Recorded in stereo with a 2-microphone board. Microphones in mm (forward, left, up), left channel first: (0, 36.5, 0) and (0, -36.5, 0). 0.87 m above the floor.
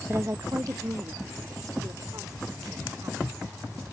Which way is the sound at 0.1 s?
30° right (ahead or behind).